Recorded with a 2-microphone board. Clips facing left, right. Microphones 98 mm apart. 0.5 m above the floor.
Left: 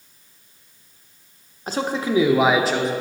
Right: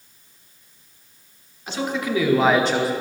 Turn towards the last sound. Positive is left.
turn(degrees=-10)  # may be behind; listen again after turning